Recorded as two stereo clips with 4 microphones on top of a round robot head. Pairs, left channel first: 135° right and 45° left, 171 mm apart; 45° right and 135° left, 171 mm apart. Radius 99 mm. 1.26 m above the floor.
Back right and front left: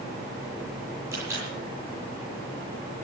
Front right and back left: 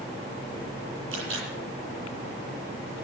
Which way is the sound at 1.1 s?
120° left.